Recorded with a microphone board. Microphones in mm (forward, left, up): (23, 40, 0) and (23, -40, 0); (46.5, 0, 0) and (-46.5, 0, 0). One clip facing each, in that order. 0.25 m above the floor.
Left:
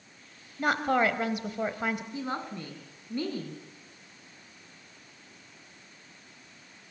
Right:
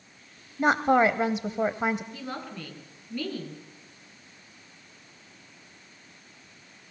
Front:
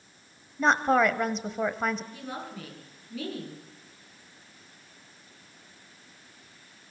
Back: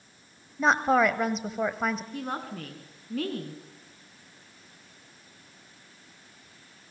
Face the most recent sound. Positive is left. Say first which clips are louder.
# left 3 dB, back 4 dB
turn(degrees=150)